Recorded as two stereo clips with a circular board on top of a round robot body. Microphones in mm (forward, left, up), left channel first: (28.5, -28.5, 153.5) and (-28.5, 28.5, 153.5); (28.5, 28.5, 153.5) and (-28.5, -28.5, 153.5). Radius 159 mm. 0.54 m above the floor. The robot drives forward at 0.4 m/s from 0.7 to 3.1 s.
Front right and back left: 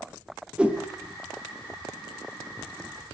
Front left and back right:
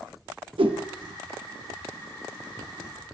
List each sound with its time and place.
0.6 s a whoosh: 145° right, 1.3 m; by 0.8 s 150° right, 1.4 m